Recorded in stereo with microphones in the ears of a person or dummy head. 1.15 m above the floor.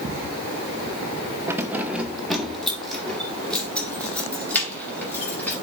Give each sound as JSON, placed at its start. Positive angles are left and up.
{"t": 1.5, "sound": "keys jangling", "side_deg": -15, "distance_m": 0.7}